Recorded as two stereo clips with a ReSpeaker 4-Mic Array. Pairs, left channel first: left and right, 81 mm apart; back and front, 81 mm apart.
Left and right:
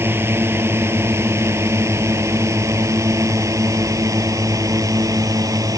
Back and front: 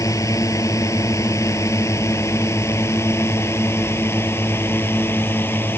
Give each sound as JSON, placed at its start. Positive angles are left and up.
{"t": 0.0, "sound": "a drone", "azimuth_deg": -145}